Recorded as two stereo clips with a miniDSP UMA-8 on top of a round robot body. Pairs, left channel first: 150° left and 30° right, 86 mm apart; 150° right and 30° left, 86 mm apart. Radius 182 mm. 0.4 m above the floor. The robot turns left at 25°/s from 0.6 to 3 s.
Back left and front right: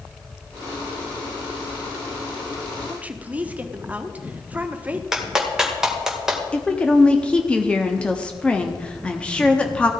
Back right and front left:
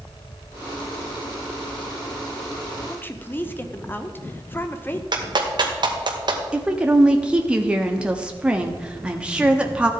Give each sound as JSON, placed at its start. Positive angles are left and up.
{"t": 2.9, "sound": "a woman speaking", "azimuth_deg": -90, "distance_m": 1.4}
{"t": 5.1, "sound": "a clap", "azimuth_deg": 50, "distance_m": 2.0}
{"t": 6.5, "sound": "a woman speaking", "azimuth_deg": 90, "distance_m": 1.4}